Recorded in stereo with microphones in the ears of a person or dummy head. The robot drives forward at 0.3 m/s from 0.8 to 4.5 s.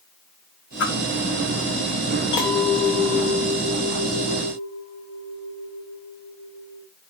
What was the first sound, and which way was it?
A whoosh, 60° left (ahead or behind).